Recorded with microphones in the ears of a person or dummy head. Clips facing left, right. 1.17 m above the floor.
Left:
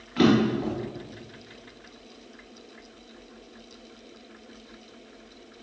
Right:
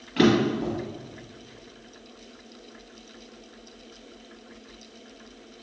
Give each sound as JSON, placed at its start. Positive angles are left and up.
{"t": 0.2, "sound": "a drawer", "side_deg": -20, "distance_m": 1.3}